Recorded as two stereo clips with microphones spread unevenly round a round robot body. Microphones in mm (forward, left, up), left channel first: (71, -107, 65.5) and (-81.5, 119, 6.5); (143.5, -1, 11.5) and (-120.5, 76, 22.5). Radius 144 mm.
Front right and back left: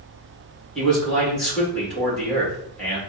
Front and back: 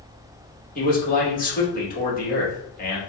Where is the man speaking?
40° left, 1.7 m.